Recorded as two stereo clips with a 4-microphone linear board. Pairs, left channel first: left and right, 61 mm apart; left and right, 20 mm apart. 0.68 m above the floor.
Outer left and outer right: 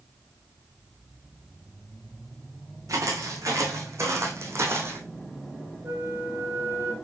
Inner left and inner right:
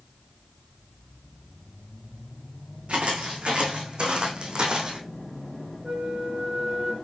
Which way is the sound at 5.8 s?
55° right (ahead or behind).